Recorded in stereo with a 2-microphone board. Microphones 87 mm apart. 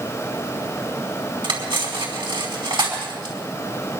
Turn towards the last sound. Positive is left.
turn(degrees=-70)  # may be behind; listen again after turning